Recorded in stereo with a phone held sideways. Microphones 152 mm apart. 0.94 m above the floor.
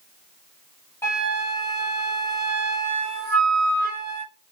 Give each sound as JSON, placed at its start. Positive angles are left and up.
{"t": 1.0, "sound": "a flute", "side_deg": 15, "distance_m": 1.3}